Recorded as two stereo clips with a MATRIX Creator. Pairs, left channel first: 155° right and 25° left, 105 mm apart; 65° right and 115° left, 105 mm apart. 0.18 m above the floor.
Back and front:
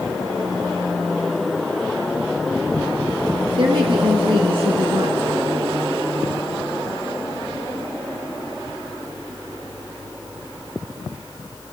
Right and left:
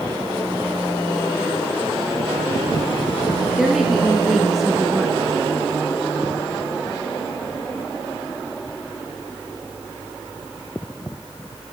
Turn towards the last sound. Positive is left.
turn(degrees=25)